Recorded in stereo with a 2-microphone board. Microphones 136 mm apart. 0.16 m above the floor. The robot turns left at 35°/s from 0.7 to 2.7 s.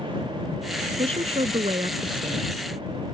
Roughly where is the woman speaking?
Right.